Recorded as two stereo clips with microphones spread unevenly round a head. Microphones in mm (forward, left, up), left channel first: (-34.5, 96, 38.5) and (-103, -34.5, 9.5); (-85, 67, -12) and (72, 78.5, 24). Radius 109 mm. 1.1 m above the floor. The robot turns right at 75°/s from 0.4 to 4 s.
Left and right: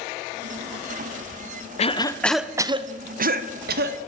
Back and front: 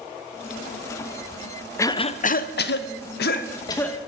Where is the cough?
110° left, 0.7 m; by 4.0 s 85° right, 0.7 m.